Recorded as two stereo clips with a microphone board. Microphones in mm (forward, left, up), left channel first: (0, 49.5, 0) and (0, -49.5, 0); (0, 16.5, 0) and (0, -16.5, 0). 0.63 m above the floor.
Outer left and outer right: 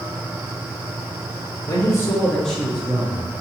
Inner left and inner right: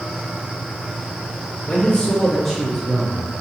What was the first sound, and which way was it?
A man speaking, 40° left (ahead or behind).